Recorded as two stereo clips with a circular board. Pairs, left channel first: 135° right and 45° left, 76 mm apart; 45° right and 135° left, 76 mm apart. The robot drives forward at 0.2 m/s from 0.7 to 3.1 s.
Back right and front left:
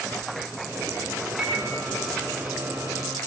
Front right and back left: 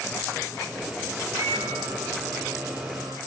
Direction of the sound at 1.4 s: 135° left.